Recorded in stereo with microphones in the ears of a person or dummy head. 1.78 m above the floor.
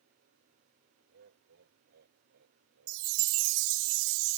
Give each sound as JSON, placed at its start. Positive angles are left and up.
{"t": 1.1, "sound": "laughter", "side_deg": -60}
{"t": 2.9, "sound": "a chime", "side_deg": -80}